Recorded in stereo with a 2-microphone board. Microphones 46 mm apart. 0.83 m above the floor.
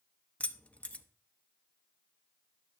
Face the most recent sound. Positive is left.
turn(degrees=30)  # may be behind; listen again after turning